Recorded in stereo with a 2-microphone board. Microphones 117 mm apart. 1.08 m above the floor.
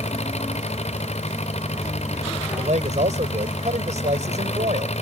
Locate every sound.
0.0 s an engine running: 70° left (ahead or behind)
2.6 s a man speaking: 85° right